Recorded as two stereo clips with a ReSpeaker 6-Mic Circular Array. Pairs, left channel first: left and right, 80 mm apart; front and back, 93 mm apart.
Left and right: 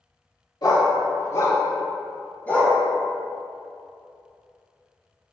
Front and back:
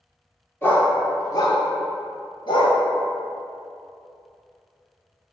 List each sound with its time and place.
0.6 s a dog barking: 65° left, 1.5 m; by 2.8 s 15° left, 2 m